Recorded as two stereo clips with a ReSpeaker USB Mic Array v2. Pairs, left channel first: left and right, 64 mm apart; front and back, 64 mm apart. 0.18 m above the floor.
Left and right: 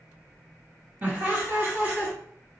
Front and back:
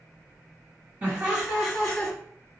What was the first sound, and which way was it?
Laughter, 130° right.